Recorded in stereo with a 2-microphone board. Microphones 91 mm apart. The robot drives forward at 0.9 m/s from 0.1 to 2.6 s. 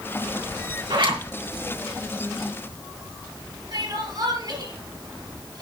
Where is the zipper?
65° right (ahead or behind), 4.5 m.